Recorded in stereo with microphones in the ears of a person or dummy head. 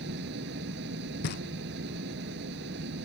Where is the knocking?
50° left (ahead or behind).